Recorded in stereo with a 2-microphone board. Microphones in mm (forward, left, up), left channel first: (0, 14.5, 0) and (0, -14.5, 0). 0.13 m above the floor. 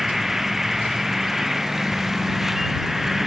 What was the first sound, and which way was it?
An insect, 10° right (ahead or behind).